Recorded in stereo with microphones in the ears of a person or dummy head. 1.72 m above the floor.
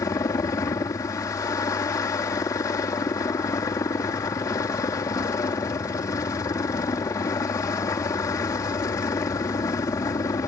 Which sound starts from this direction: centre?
A helicopter, at 0.0 s.